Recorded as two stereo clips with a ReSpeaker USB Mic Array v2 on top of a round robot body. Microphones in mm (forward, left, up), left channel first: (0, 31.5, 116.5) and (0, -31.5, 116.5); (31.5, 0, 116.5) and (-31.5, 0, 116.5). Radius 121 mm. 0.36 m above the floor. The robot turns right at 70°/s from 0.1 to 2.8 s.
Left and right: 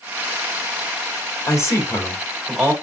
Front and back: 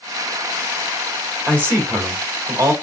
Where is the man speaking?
115° left, 2.5 m; by 2.7 s 155° right, 2.5 m.